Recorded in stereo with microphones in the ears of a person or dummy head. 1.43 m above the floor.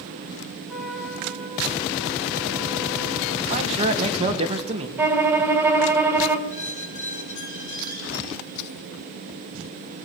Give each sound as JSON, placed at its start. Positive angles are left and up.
{"t": 0.7, "sound": "a trumpet", "side_deg": -5, "distance_m": 3.5}
{"t": 3.5, "sound": "a man speaking", "side_deg": -35, "distance_m": 2.5}
{"t": 5.0, "sound": "a violin", "side_deg": -15, "distance_m": 1.6}
{"t": 6.5, "sound": "a squeak", "side_deg": 65, "distance_m": 5.5}